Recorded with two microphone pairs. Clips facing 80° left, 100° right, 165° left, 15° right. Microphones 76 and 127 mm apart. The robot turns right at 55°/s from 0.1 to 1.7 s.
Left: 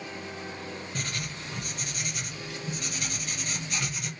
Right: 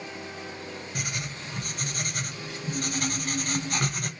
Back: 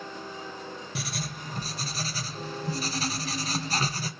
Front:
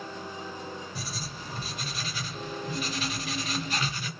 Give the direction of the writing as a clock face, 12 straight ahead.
6 o'clock.